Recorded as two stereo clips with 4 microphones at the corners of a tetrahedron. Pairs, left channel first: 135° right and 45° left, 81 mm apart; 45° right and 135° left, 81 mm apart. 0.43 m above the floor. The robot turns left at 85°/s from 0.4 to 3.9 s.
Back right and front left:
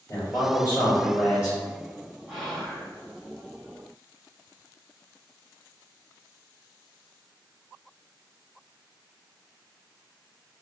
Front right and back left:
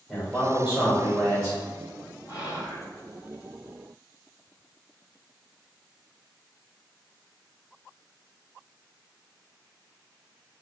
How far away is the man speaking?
About 1.4 m.